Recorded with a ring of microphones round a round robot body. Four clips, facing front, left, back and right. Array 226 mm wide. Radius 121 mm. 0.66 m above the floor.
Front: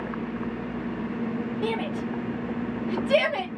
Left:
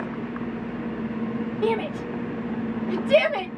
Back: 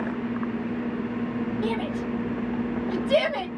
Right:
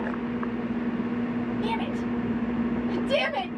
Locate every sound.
1.6 s a shout: 80° left, 1.2 m